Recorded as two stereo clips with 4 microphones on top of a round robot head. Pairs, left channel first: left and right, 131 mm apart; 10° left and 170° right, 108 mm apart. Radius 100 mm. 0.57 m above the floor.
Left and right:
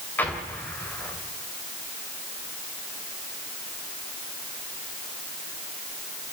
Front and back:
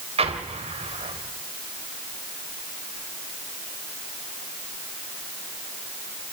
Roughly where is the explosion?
Behind.